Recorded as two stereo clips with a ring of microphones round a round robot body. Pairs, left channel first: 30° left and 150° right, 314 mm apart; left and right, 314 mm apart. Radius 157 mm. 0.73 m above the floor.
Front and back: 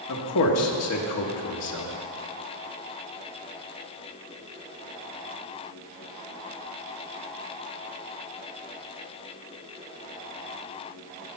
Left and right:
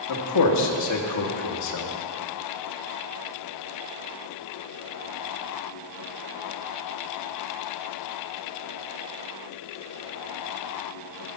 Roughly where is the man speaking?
Ahead left.